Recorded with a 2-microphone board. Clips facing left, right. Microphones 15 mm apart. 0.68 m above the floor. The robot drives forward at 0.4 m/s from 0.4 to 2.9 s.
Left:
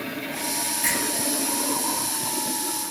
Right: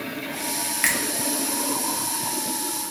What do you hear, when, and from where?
0.8 s a finger snap: 55° right (ahead or behind), 0.6 m; by 1.0 s 60° right (ahead or behind), 0.6 m